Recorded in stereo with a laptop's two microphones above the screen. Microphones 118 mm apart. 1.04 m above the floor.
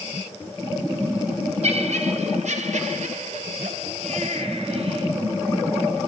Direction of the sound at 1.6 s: 65° right (ahead or behind).